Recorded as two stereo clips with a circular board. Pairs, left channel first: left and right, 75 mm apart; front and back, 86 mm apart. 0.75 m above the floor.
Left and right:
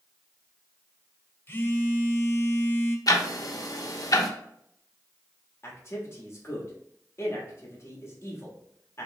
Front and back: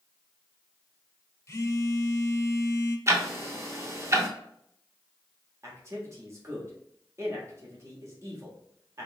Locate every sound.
1.5 s a phone buzzing: 40° left, 0.5 m
3.1 s ticking: 125° left, 0.6 m
5.6 s a man speaking: 135° left, 1.2 m